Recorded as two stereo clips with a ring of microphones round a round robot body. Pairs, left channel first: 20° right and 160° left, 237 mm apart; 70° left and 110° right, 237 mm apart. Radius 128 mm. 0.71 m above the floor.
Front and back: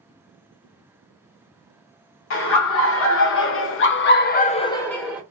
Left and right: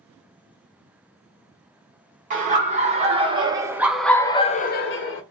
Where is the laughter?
55° right, 1.3 m; by 5.2 s 75° left, 0.6 m.